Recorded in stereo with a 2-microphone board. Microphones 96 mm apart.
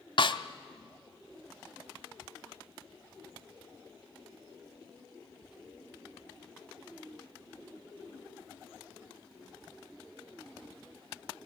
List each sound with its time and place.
0.2 s a snare drum: 60° left (ahead or behind), 0.7 m